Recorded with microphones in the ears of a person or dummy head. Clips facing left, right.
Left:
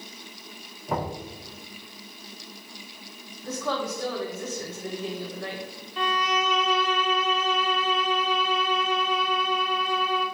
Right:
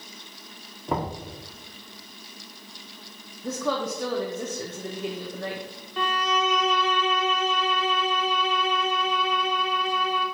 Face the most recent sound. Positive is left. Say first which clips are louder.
# right 1 dB
turn(degrees=-40)  # may be behind; listen again after turning